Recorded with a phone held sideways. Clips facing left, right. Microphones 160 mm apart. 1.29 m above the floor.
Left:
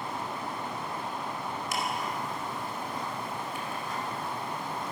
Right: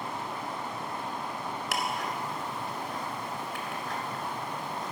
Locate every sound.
1.7 s ticking: 85° right, 4.5 m